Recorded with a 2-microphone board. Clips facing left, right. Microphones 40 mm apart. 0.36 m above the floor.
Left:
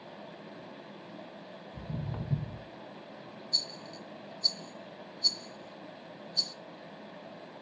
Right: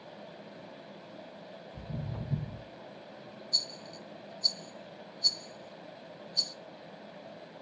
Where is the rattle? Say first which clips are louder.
Even; centre (ahead or behind), 0.7 m.